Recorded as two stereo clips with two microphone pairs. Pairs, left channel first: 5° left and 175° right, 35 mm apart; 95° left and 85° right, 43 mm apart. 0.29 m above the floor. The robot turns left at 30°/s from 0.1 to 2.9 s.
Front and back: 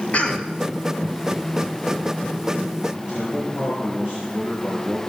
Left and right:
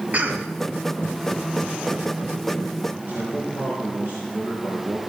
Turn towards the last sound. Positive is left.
turn(degrees=-115)